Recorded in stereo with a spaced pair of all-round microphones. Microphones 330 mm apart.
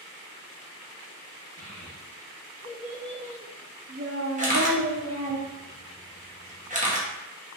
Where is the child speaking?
40° left (ahead or behind), 1.1 m; by 5.4 s 80° right, 1.1 m.